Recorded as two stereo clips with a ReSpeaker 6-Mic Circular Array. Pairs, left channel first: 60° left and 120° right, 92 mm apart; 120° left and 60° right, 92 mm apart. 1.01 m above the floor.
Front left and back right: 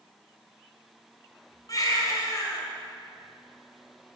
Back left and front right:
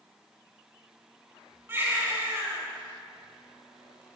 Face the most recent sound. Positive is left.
turn(degrees=5)